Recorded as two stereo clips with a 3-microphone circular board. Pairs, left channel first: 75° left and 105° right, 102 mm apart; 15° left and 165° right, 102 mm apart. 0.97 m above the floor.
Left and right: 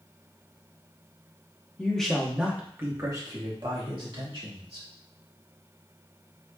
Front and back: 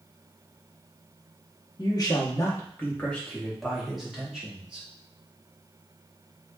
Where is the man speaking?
5° left, 0.9 m; by 4.9 s 85° right, 1.6 m.